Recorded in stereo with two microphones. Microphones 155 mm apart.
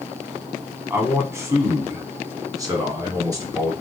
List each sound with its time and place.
0.9 s a man speaking: 15° right (ahead or behind), 1.1 m; by 3.7 s 25° right (ahead or behind), 2 m